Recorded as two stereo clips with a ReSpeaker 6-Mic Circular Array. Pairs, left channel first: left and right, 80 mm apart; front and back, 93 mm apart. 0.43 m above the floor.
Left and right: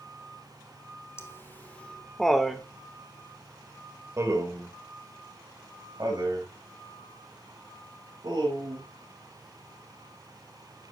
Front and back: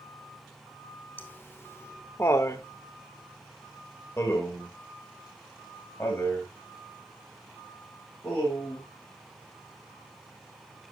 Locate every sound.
1.2 s laughter: 55° left, 1.3 m; by 10.9 s 75° right, 5 m